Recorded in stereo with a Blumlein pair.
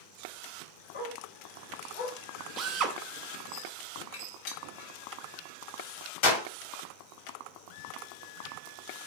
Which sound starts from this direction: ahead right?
A drill, at 2.6 s.